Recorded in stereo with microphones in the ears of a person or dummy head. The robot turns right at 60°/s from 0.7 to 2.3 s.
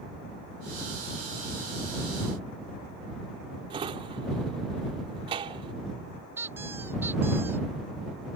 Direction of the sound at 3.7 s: 25° right (ahead or behind).